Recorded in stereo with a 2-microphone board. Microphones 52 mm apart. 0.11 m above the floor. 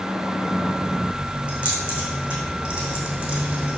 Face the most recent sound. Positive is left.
turn(degrees=-25)  # may be behind; listen again after turning